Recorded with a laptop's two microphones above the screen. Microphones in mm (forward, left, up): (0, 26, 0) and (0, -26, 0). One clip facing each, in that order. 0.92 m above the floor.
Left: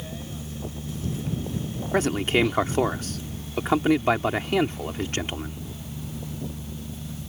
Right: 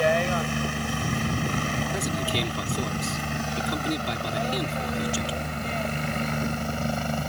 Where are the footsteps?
I don't hear footsteps.